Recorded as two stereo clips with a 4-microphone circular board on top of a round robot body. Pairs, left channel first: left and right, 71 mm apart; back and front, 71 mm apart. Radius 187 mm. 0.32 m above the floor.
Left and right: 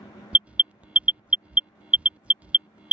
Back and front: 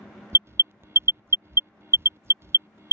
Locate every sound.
0.3 s an alarm: 30° right